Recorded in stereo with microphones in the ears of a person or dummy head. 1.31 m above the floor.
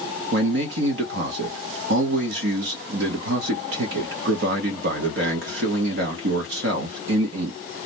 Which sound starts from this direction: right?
A man speaking, at 0.3 s.